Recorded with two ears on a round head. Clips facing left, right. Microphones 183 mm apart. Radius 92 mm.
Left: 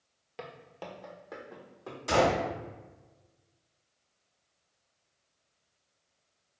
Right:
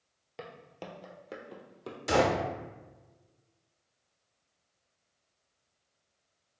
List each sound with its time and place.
0.4 s footsteps: 5° right (ahead or behind), 0.8 m; by 2.0 s 45° right (ahead or behind), 1.3 m
2.1 s a gunshot: 20° right (ahead or behind), 0.9 m